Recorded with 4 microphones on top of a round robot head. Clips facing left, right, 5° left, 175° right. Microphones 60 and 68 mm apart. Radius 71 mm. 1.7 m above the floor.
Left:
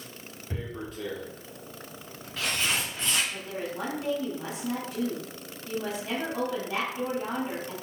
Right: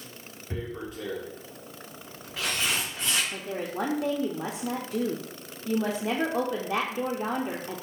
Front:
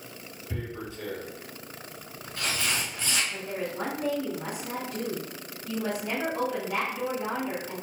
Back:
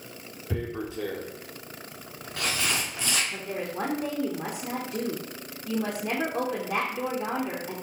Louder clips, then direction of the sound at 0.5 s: Right 2 dB, back 5 dB; 175° right.